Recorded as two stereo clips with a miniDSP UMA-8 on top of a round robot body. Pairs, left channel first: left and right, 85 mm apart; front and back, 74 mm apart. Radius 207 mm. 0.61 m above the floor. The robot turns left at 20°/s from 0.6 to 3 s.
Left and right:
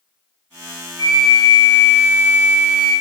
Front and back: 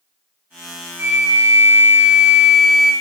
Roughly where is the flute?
Behind left.